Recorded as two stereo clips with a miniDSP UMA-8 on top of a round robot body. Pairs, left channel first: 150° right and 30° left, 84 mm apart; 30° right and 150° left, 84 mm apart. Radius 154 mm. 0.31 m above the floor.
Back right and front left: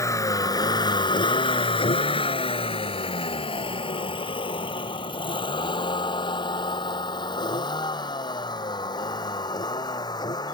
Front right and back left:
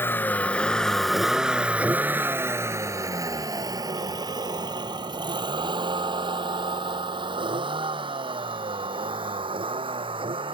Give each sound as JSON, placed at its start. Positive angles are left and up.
{"t": 0.0, "sound": "a vehicle", "azimuth_deg": -95}